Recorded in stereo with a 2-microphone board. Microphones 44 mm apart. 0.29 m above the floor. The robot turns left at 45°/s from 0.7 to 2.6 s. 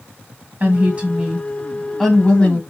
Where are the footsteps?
No footsteps in this recording.